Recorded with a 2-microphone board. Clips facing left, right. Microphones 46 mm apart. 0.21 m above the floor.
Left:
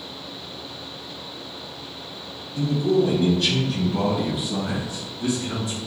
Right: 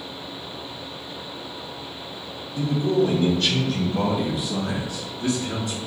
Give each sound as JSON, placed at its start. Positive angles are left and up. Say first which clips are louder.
{"t": 2.6, "sound": "a man speaking", "louder": "left 1 dB", "side_deg": -5, "distance_m": 1.6}